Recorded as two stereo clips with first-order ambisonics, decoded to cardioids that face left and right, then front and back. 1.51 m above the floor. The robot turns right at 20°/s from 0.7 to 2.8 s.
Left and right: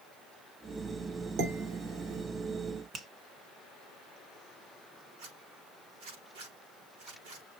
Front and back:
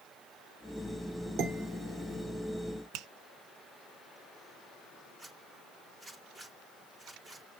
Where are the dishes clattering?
125° right, 3 m; by 2.2 s 105° right, 3 m.